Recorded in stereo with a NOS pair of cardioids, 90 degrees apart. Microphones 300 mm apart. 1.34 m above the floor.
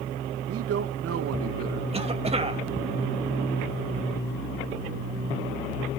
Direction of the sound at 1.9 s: 20° right.